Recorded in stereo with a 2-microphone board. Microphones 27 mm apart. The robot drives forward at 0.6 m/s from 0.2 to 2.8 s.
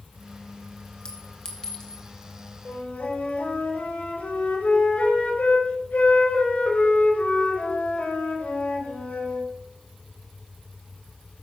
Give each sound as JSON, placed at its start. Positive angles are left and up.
{"t": 1.1, "sound": "a clink", "side_deg": 30, "distance_m": 3.0}
{"t": 2.6, "sound": "a flute", "side_deg": 80, "distance_m": 5.0}